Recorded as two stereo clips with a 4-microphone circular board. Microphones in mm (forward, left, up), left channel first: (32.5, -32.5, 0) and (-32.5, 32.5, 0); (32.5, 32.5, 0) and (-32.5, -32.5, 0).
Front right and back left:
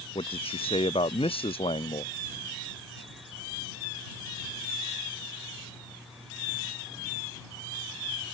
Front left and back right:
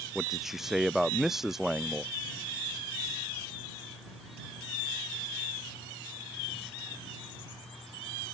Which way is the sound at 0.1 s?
45° right.